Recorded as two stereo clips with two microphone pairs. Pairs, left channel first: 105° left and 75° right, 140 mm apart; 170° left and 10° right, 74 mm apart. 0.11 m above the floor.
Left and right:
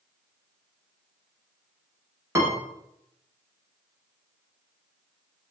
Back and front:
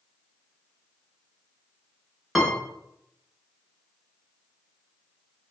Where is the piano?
100° right, 0.8 m.